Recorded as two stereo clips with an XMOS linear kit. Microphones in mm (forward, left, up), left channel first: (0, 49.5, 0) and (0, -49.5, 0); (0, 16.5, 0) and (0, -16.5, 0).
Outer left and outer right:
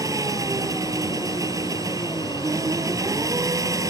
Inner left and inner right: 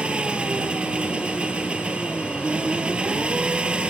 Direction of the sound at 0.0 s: 35° right (ahead or behind).